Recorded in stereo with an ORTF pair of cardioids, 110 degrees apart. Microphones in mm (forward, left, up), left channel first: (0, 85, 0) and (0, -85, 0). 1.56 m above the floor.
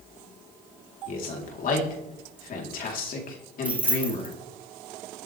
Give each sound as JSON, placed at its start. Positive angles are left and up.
{"t": 1.1, "sound": "a man speaking", "azimuth_deg": 55, "distance_m": 4.0}
{"t": 3.6, "sound": "keys jangling", "azimuth_deg": -10, "distance_m": 2.5}